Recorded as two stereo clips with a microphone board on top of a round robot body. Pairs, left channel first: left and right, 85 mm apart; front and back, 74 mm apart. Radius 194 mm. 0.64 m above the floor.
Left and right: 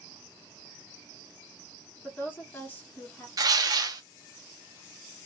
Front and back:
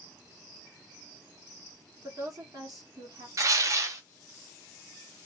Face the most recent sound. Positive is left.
turn(degrees=-135)